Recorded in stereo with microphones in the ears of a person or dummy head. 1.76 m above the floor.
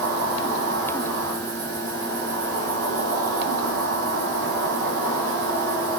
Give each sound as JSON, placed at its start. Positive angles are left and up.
{"t": 0.0, "sound": "an insect", "side_deg": -70, "distance_m": 3.0}